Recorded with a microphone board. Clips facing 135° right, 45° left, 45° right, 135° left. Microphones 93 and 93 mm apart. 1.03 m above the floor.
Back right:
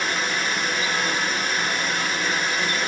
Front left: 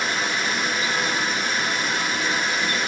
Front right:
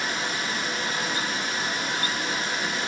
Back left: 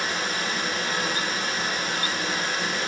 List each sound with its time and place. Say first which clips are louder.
0.0 s running water: even, back left 1 dB; 135° left, 4.5 m